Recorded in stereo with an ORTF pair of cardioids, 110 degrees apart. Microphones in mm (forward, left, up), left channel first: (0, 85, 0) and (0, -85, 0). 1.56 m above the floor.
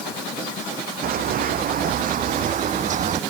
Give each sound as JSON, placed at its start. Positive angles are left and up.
{"t": 1.0, "sound": "running footsteps", "azimuth_deg": -65}